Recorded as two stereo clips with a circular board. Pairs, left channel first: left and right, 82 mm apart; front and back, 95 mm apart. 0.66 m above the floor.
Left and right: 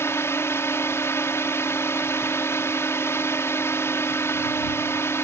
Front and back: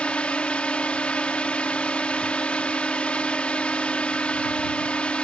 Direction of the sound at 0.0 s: 70° left.